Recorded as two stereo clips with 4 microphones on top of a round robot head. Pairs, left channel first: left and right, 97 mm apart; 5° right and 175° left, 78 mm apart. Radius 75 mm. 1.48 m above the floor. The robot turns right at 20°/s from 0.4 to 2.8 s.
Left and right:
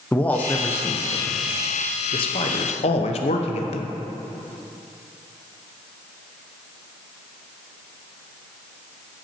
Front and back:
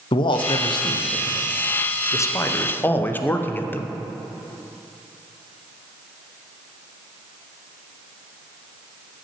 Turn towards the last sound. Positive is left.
turn(degrees=60)